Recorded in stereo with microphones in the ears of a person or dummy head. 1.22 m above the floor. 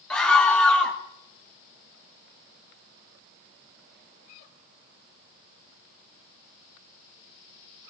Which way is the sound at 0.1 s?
5° left (ahead or behind).